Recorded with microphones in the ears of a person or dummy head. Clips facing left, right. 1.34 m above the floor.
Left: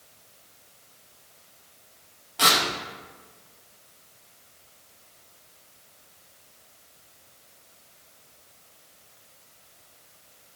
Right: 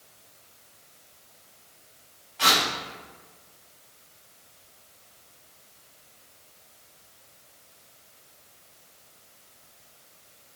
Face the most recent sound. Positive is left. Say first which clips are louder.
# left 1 dB
turn(degrees=65)  # may be behind; listen again after turning